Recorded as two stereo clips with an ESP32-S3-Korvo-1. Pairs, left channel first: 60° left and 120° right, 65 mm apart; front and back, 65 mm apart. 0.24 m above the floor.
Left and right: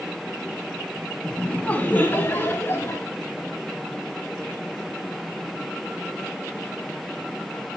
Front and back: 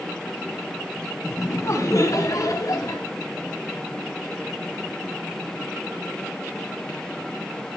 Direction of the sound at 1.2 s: 10° right.